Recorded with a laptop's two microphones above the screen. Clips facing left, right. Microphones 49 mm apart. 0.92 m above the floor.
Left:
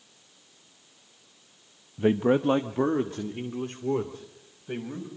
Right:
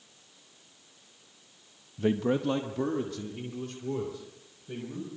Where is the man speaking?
20° left (ahead or behind), 0.5 m; by 5.1 s 35° left (ahead or behind), 4 m.